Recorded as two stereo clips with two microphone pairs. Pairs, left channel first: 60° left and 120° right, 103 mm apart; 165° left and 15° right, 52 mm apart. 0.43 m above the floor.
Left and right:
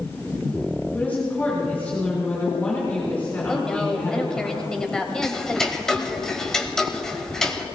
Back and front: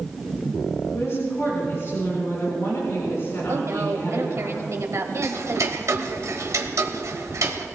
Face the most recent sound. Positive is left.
turn(degrees=-25)